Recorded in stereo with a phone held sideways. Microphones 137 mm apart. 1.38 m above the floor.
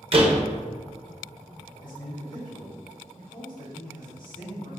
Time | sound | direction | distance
0.1 | a door slam | 45° right (ahead or behind) | 0.6 m
1.8 | a man speaking | 70° left (ahead or behind) | 1.9 m